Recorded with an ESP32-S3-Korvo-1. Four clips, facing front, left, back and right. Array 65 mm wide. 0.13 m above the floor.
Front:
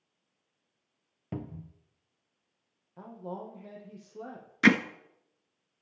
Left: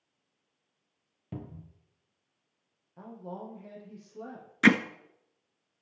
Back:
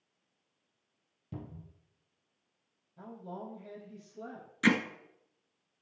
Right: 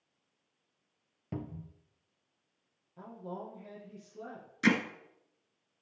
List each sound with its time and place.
1.3 s a cupboard door: 10° right, 0.8 m
3.0 s a woman speaking: 20° left, 4.5 m
4.6 s hammering: 45° left, 0.6 m